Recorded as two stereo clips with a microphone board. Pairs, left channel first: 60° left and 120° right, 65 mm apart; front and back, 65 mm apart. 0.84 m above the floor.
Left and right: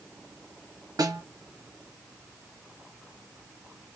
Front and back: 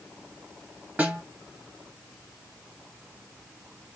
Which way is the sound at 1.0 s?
110° right.